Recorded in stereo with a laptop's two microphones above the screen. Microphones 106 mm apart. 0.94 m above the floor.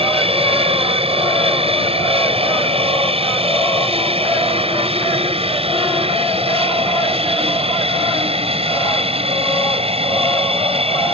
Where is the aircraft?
65° right (ahead or behind).